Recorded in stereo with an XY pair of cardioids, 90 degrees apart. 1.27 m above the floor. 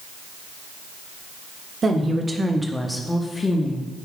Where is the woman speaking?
45° right, 1.3 m; by 3.9 s 50° left, 1.2 m.